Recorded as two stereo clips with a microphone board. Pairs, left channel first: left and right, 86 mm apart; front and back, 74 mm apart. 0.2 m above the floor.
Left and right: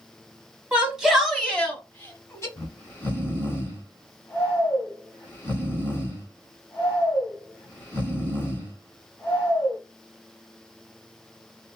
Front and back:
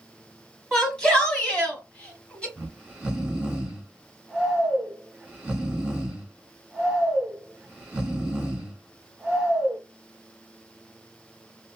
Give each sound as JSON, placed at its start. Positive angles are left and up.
{"t": 0.7, "sound": "a shout", "azimuth_deg": -55, "distance_m": 1.2}
{"t": 2.6, "sound": "snoring", "azimuth_deg": 110, "distance_m": 1.4}